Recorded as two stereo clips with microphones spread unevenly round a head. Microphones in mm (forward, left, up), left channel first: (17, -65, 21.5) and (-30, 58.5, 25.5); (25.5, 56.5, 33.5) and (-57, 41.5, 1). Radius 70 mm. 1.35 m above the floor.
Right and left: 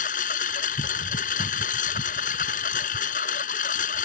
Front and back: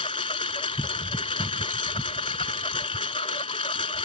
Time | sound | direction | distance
0.0 | a lawn mower | 35° right | ?